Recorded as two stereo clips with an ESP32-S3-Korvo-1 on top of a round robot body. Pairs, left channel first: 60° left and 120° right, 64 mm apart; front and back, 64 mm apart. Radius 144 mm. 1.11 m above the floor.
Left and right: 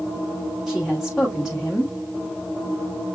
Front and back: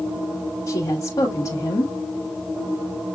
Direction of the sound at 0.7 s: 35° right.